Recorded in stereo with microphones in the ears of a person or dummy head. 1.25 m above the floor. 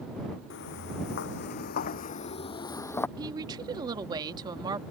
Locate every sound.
0.5 s footsteps: 60° left (ahead or behind); by 3.1 s 5° left (ahead or behind)
3.2 s a woman speaking: 20° right (ahead or behind)